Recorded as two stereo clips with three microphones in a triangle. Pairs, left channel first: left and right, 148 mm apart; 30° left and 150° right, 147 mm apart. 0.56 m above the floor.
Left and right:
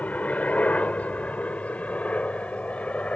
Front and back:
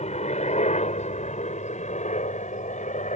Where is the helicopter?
10° left.